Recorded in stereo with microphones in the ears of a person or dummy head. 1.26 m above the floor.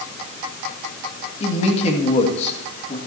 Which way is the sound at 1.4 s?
40° left (ahead or behind).